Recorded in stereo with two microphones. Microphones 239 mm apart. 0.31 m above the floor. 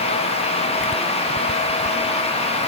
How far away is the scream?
No scream in this recording.